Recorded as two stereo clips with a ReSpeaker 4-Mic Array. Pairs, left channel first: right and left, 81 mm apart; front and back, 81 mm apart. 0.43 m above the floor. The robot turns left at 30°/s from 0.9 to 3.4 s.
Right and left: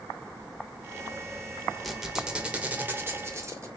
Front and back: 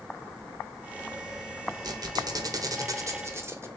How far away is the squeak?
About 0.8 m.